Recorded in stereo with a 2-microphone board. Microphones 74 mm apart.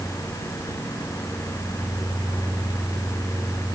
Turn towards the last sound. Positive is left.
No sound to turn to.